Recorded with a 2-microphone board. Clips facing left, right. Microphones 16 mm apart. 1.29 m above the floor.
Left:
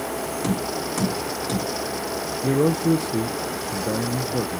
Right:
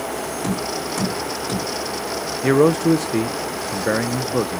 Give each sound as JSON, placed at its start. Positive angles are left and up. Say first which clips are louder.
{"t": 0.4, "sound": "tapping", "louder": "right 1 dB", "side_deg": 5, "distance_m": 4.5}
{"t": 2.4, "sound": "a man speaking", "louder": "right 5 dB", "side_deg": -50, "distance_m": 0.6}